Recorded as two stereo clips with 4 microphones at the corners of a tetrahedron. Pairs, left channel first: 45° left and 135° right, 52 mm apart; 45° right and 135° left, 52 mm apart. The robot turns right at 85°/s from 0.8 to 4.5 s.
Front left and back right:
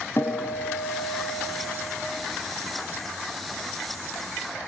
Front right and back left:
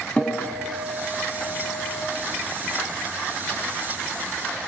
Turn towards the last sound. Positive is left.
turn(degrees=-25)